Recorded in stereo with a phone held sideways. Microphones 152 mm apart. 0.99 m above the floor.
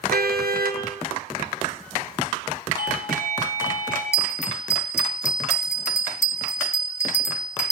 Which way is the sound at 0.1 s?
85° right.